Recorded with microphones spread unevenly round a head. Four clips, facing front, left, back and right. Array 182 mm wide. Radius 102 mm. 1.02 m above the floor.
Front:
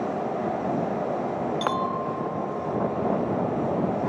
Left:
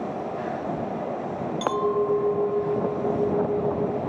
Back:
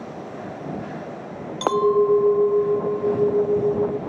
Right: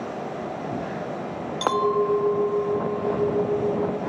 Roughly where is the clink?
Behind.